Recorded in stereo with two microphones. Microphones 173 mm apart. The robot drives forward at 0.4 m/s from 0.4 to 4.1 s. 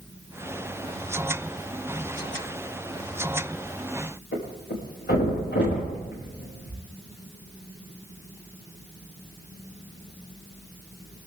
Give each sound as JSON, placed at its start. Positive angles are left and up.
{"t": 4.3, "sound": "a thud", "side_deg": 80, "distance_m": 9.0}